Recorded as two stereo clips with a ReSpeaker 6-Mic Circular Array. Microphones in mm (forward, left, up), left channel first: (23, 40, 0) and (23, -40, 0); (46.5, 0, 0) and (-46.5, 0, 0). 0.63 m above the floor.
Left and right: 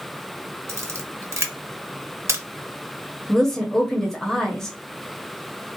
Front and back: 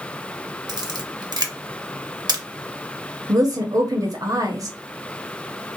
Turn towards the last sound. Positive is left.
turn(degrees=170)